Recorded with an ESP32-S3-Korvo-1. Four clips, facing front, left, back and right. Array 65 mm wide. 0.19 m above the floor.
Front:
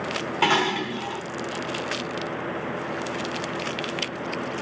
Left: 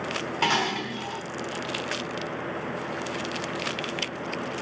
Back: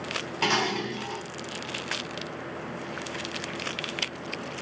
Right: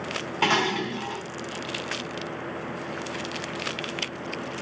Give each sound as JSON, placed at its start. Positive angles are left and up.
{"t": 0.4, "sound": "dishes clattering", "azimuth_deg": -20, "distance_m": 1.0}